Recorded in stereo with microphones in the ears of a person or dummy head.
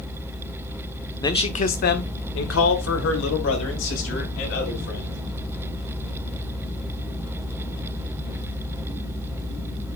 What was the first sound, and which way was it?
A man speaking, 15° left (ahead or behind).